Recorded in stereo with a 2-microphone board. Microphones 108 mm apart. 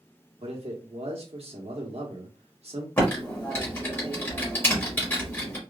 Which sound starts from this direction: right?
A man speaking, at 0.4 s.